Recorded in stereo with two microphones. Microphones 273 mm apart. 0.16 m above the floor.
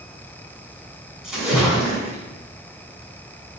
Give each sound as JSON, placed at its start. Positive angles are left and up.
{"t": 1.2, "sound": "a splash", "side_deg": 0, "distance_m": 1.6}